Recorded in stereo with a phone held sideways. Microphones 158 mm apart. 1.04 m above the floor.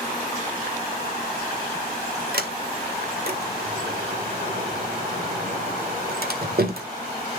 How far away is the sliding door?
About 1.7 m.